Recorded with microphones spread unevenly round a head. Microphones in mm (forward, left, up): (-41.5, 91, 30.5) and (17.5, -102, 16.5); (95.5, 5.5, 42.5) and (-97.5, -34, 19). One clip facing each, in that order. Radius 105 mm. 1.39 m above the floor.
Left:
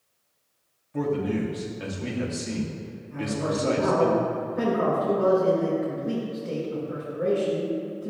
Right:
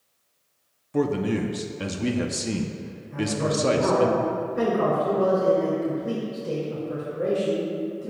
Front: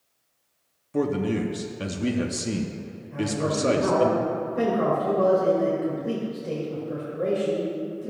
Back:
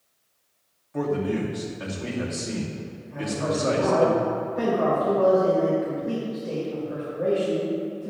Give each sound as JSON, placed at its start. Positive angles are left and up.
{"t": 0.9, "sound": "a man speaking", "azimuth_deg": -40, "distance_m": 0.7}
{"t": 3.1, "sound": "a man speaking", "azimuth_deg": -45, "distance_m": 2.5}